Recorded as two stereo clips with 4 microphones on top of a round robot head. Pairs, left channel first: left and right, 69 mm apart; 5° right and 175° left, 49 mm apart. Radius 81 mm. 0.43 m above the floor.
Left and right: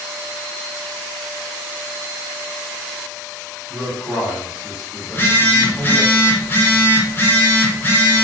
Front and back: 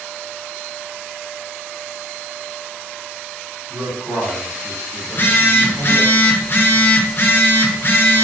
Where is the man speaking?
160° right, 1.6 m.